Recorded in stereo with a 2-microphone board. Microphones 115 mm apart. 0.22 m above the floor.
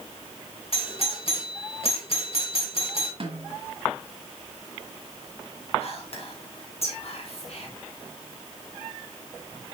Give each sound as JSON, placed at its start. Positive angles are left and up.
{"t": 0.7, "sound": "a doorbell", "side_deg": 55, "distance_m": 3.0}
{"t": 3.2, "sound": "a snare drum", "side_deg": -50, "distance_m": 1.9}
{"t": 5.8, "sound": "whispering", "side_deg": 60, "distance_m": 2.5}